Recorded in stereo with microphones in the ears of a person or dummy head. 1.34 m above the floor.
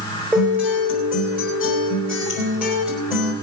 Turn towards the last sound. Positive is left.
turn(degrees=-5)  # may be behind; listen again after turning